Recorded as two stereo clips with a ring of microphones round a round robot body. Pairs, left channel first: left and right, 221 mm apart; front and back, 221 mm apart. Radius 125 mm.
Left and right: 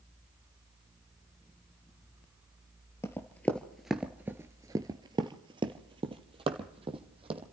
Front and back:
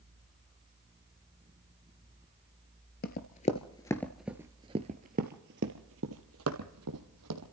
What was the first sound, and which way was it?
Running footsteps, 15° left.